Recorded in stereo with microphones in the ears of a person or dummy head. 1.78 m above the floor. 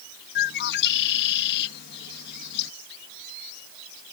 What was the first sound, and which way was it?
A bird, 65° left (ahead or behind).